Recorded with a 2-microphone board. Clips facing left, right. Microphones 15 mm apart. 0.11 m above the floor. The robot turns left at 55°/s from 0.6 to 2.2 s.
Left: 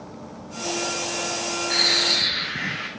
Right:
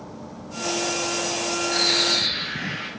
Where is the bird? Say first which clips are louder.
Left 1 dB; 50° left (ahead or behind), 2.5 m; by 2.9 s 25° left (ahead or behind), 2.5 m.